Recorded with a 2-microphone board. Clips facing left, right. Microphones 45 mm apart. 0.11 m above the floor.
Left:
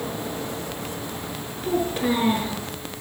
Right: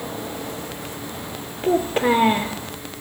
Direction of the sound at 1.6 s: 30° right (ahead or behind).